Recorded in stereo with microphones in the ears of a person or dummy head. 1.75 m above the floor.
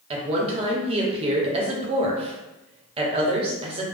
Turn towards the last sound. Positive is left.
turn(degrees=-35)  # may be behind; listen again after turning